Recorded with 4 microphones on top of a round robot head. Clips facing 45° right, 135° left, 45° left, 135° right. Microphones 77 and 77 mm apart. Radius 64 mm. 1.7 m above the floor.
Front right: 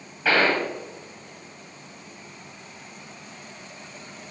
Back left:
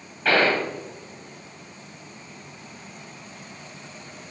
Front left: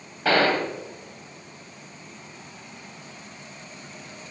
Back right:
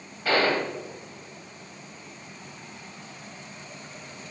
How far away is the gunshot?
About 1.3 m.